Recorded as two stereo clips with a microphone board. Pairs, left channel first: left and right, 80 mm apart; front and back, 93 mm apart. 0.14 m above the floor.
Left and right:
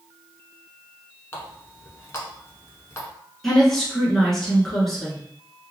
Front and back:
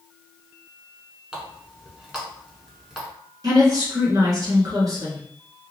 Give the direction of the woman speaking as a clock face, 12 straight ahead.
6 o'clock.